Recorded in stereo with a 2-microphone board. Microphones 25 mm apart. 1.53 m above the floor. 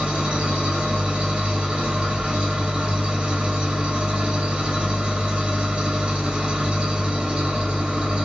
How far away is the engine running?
About 1.3 m.